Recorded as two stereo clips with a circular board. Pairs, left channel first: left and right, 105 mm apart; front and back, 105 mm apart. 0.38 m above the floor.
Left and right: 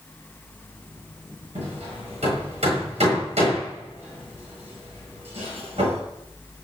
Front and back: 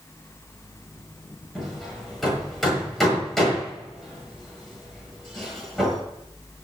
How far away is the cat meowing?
No cat meowing in this recording.